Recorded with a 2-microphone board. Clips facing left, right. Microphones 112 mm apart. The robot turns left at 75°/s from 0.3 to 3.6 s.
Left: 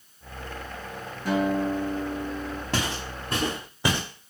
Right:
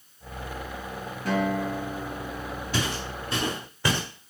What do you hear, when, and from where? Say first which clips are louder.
1.2 s a guitar: left 2 dB; straight behind, 2.5 m; by 2.6 s 75° left, 2.5 m
2.7 s footsteps: right 1 dB; 80° left, 3.5 m; by 4.0 s 15° left (ahead or behind), 2.5 m